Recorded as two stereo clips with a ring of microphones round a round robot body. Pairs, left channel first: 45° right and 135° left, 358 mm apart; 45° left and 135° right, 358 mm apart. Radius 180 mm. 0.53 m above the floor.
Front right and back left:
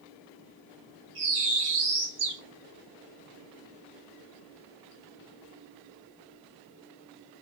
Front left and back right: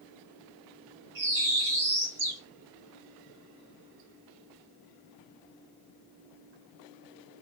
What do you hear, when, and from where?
1.1 s a bird: 170° left, 3 m